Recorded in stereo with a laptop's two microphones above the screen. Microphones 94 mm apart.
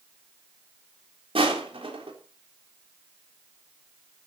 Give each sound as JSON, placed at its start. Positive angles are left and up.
{"t": 1.4, "sound": "crushing", "side_deg": -80, "distance_m": 3.5}